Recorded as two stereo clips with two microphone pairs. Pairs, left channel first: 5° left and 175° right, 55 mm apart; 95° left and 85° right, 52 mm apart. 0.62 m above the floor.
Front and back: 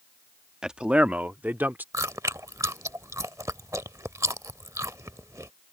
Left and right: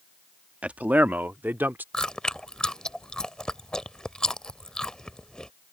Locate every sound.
0.6 s a man speaking: 110° right; by 1.8 s 130° right
1.9 s chewing: 170° left